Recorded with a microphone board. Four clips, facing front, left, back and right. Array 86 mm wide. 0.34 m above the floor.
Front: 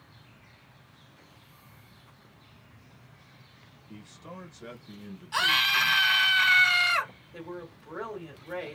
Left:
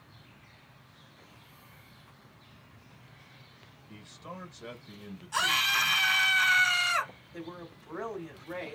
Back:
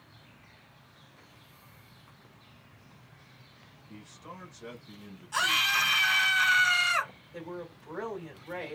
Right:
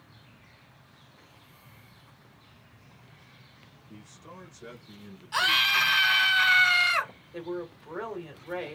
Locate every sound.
3.9 s a man speaking: 65° left, 1.0 m
5.3 s a scream: 50° right, 0.8 m
7.3 s a woman speaking: 75° right, 1.6 m